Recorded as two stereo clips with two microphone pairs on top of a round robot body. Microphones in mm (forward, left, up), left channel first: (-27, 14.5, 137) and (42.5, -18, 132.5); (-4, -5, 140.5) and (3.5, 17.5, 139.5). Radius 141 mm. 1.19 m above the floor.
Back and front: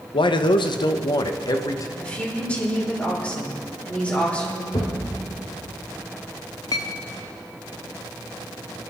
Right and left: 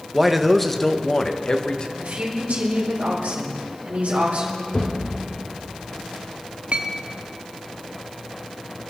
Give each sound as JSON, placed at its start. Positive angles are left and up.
{"t": 0.1, "sound": "a man speaking", "azimuth_deg": 155, "distance_m": 1.0}
{"t": 2.0, "sound": "a woman speaking", "azimuth_deg": 80, "distance_m": 5.0}
{"t": 4.7, "sound": "a thud", "azimuth_deg": -165, "distance_m": 2.5}
{"t": 6.7, "sound": "a clink", "azimuth_deg": 115, "distance_m": 0.5}